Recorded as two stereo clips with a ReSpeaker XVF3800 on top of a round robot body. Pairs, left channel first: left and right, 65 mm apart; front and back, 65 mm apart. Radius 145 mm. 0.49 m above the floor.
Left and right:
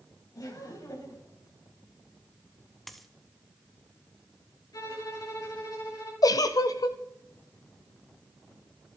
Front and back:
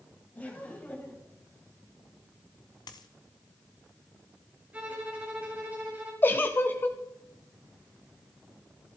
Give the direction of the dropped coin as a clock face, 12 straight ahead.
12 o'clock.